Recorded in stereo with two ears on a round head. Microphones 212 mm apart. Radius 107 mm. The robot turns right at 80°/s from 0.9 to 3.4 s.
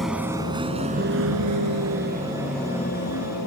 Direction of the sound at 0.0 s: Centre (ahead or behind).